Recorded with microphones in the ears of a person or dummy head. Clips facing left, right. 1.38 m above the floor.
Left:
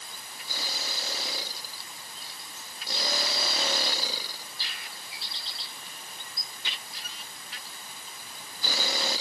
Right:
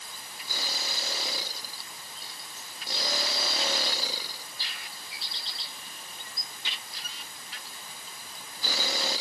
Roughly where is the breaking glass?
No breaking glass in this recording.